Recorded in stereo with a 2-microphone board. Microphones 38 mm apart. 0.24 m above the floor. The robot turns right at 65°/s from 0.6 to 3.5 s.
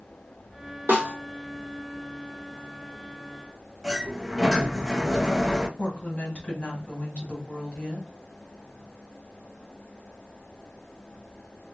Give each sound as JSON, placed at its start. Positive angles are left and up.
{"t": 0.9, "sound": "a snare drum", "side_deg": -80, "distance_m": 3.0}
{"t": 3.8, "sound": "a sliding door", "side_deg": -10, "distance_m": 1.3}
{"t": 5.8, "sound": "a woman speaking", "side_deg": 35, "distance_m": 1.9}